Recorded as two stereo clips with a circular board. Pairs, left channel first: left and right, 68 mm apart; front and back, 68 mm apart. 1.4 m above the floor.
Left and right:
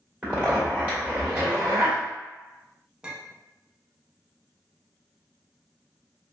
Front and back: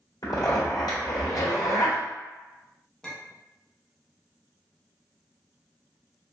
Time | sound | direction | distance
0.2 | a zipper | 20° right | 1.7 m
3.0 | a clink | 50° right | 0.7 m